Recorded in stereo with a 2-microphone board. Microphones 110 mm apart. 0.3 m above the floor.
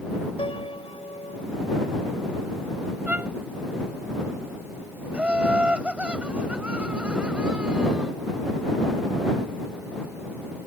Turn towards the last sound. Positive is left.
turn(degrees=-10)  # may be behind; listen again after turning